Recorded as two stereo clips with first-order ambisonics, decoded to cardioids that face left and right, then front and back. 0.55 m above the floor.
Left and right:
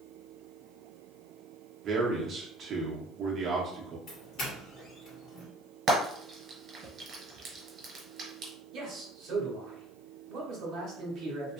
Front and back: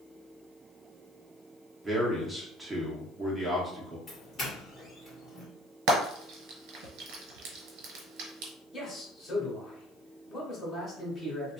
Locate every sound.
1.8 s a man speaking: 110° right, 0.9 m
4.1 s a doorbell: 60° left, 1.5 m
5.9 s frying: 155° right, 1.4 m
8.7 s a man speaking: 75° right, 1.6 m